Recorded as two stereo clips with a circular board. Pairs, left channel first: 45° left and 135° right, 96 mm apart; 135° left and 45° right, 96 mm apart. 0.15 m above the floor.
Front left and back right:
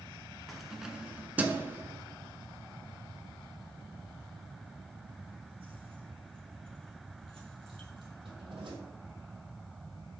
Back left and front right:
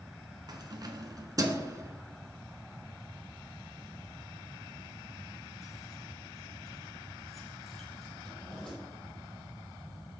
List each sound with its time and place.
0.5 s keys jangling: 45° right, 1.4 m; by 8.8 s 140° right, 4 m